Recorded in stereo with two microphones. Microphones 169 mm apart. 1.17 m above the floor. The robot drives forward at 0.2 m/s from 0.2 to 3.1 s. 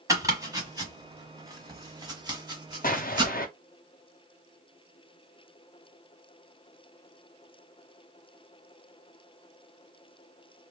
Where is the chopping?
20° right (ahead or behind), 1.3 m; by 3.3 s 25° right (ahead or behind), 1.1 m.